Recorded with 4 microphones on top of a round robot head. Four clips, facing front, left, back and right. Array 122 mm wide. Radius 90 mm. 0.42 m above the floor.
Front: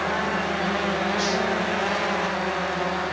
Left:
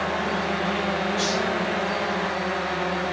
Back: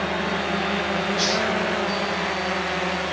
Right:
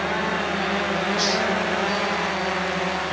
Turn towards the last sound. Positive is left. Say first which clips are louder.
# right 1 dB, even
turn(degrees=-160)